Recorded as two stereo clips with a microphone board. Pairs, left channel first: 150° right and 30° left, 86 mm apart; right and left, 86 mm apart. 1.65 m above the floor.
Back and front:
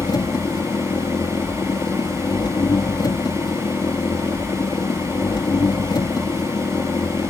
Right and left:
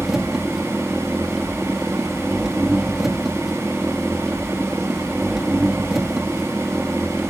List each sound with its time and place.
0.0 s an engine running: 175° left